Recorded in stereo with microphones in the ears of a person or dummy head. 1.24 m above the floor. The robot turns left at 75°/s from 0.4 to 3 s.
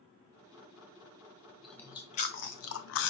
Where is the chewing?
Straight behind, 0.8 m; by 3.1 s 80° left, 0.8 m.